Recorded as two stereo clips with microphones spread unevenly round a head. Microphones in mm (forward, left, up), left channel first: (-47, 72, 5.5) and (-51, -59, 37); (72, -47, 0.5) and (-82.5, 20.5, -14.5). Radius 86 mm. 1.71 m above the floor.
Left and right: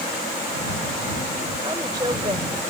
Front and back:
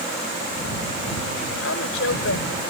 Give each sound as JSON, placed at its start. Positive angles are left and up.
{"t": 1.6, "sound": "a woman speaking", "azimuth_deg": -25}